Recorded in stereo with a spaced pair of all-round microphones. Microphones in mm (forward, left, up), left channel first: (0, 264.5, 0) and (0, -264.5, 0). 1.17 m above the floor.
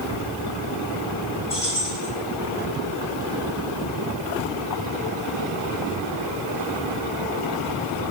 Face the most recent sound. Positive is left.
turn(degrees=80)